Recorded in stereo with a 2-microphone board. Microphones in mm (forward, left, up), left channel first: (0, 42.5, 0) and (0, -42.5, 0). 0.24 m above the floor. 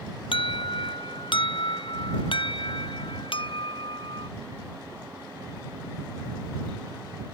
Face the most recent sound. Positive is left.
turn(degrees=65)  # may be behind; listen again after turning